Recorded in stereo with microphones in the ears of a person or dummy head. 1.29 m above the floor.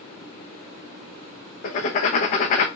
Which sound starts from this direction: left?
Writing, at 1.6 s.